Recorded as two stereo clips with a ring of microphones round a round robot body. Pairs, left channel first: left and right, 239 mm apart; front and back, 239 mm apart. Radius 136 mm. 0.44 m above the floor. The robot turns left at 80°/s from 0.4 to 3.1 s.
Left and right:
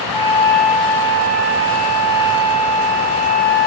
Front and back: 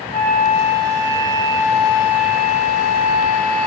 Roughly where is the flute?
Behind.